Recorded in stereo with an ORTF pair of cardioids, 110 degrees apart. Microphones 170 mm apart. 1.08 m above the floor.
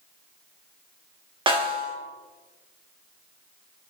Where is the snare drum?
30° right, 1.7 m.